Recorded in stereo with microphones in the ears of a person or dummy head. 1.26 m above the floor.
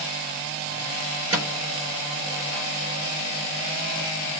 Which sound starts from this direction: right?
A microwave, at 1.3 s.